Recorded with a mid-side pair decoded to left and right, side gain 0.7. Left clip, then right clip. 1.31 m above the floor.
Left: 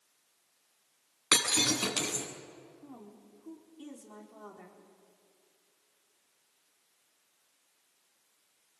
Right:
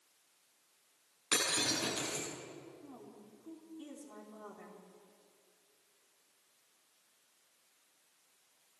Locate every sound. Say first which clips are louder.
1.3 s breaking glass: left 6 dB; 45° left, 7 m
2.8 s a woman speaking: left 2 dB; 20° left, 4.5 m